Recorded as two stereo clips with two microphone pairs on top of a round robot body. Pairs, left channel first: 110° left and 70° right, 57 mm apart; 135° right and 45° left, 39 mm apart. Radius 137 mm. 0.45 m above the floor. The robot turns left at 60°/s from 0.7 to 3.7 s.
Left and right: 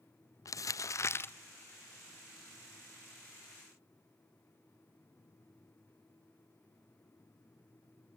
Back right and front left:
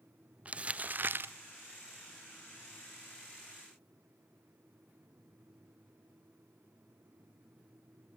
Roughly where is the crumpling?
Left.